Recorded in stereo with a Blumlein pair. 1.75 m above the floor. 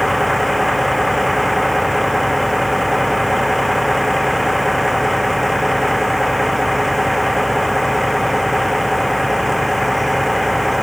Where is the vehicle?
Straight ahead.